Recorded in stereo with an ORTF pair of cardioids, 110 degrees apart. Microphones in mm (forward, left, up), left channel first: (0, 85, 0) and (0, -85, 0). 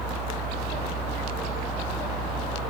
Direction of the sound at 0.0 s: Straight ahead.